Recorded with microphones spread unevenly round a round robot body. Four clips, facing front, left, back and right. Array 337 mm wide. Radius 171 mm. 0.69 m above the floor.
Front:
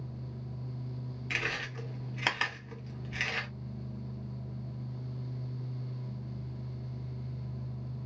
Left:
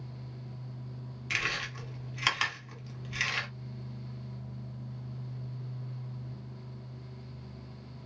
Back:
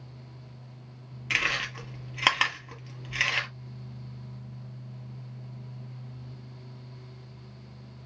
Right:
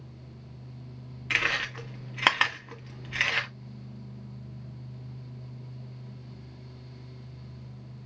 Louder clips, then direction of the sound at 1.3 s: Right 5 dB, back 6 dB; 125° right.